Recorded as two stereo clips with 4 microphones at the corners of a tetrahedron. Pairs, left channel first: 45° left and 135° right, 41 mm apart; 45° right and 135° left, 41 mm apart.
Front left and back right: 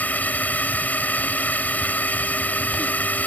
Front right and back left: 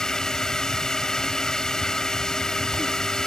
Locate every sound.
0.0 s a drone: 25° left